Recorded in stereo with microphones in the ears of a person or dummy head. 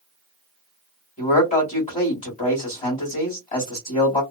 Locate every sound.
1.2 s a man speaking: 40° left (ahead or behind), 1.7 m